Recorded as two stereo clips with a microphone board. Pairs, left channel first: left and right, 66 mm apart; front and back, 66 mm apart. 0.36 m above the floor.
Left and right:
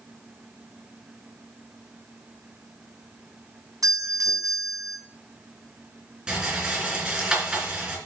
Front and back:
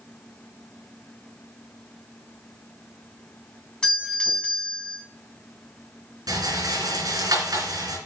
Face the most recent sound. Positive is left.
turn(degrees=-165)